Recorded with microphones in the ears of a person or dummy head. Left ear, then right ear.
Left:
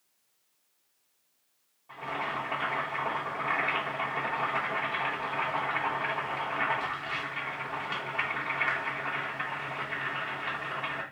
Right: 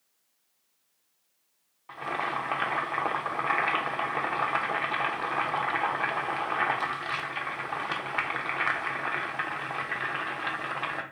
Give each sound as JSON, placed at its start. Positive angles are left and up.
{"t": 1.9, "sound": "boiling", "side_deg": -70, "distance_m": 0.9}